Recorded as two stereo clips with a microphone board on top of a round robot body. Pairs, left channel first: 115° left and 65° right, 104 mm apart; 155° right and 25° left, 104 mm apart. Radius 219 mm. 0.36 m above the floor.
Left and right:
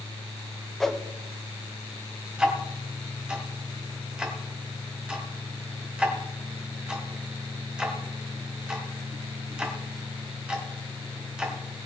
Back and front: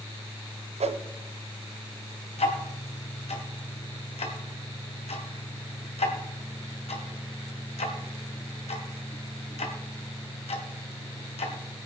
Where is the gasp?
I don't hear a gasp.